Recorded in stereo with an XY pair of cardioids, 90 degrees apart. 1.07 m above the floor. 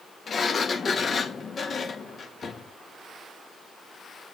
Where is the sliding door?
50° left, 1.6 m.